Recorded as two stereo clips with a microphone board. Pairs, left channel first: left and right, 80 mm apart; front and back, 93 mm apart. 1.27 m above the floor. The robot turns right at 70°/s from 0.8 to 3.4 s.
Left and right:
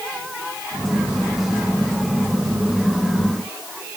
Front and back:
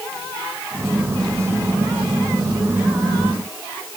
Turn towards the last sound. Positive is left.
No sound to turn to.